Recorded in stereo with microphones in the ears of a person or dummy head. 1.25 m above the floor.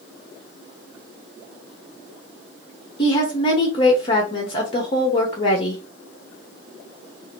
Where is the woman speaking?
25° left (ahead or behind), 0.8 m.